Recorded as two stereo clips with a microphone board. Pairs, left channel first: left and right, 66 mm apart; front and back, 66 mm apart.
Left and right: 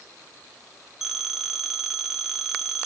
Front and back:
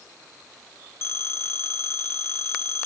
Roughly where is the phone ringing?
Ahead.